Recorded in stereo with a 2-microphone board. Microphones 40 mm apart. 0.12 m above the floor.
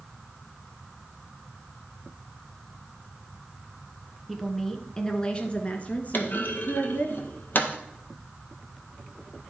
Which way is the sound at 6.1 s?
55° left (ahead or behind).